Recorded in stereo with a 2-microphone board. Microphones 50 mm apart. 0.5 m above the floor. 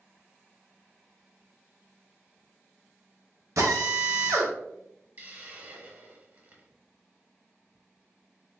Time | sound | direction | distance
3.6 | a drill | 85° right | 0.7 m
5.2 | a hiss | 35° right (ahead or behind) | 0.8 m